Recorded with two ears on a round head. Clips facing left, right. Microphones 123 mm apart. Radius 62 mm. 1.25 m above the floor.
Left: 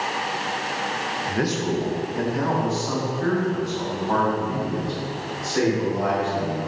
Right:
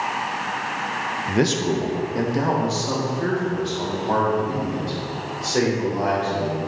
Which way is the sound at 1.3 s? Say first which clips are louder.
Right 4 dB; 25° right (ahead or behind).